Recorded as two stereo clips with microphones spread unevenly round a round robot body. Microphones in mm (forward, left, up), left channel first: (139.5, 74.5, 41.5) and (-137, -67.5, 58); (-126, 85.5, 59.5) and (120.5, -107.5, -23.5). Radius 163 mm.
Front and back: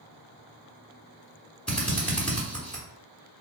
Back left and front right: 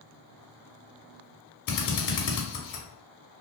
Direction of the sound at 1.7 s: 110° left.